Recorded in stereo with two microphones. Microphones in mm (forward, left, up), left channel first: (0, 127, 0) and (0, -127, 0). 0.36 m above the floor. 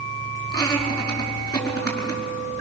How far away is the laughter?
About 5 m.